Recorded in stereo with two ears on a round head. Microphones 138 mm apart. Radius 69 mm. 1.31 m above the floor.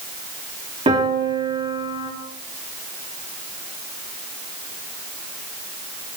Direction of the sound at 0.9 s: 35° right (ahead or behind).